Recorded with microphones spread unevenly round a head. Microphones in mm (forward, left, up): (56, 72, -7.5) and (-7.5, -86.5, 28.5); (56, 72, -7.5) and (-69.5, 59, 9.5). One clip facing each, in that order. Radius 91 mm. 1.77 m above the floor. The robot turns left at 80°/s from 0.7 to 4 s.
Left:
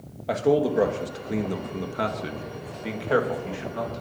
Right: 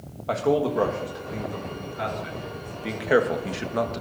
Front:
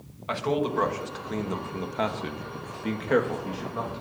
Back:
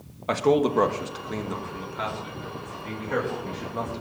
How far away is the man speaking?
About 2 m.